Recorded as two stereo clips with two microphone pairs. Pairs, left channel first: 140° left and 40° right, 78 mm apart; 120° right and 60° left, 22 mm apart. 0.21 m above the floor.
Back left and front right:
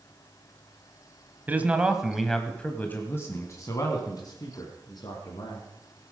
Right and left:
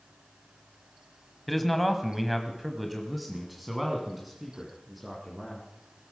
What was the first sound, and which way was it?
A man speaking, 35° right.